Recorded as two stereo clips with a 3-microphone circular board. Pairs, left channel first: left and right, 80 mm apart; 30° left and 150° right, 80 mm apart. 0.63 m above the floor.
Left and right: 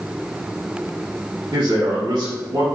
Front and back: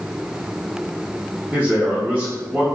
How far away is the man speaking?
About 1.3 m.